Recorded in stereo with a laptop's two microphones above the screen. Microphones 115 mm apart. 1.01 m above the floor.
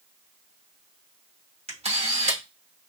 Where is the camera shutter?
60° right (ahead or behind), 1.0 m.